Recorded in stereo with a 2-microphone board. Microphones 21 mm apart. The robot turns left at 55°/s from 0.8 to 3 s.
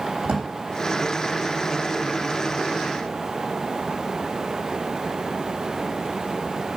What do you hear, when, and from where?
0.2 s a drawer: 65° right (ahead or behind), 3.5 m